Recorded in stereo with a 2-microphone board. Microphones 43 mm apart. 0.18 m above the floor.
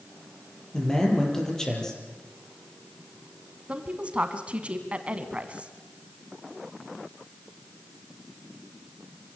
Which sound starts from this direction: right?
A woman speaking, at 3.7 s.